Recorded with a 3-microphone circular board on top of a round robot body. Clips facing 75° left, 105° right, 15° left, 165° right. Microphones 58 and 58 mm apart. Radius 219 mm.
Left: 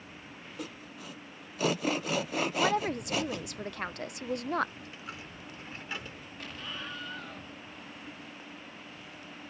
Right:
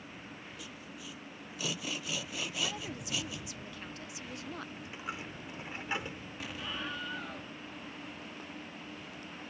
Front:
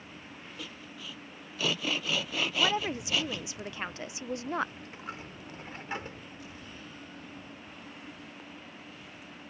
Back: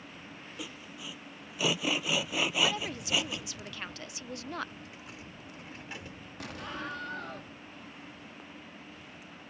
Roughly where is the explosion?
Behind.